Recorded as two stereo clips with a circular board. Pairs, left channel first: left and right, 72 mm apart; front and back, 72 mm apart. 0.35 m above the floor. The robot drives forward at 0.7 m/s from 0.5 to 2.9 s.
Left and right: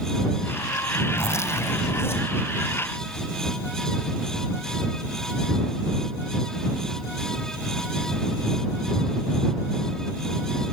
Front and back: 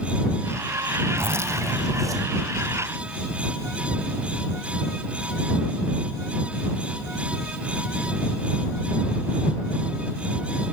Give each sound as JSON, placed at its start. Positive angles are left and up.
{"t": 1.2, "sound": "a zipper", "azimuth_deg": 130, "distance_m": 2.0}